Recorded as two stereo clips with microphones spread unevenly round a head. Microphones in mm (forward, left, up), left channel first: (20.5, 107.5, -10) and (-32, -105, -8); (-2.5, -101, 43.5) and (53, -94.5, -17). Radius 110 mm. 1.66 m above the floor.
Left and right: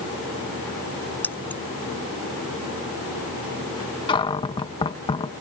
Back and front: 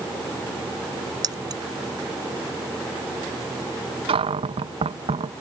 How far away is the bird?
I don't hear a bird.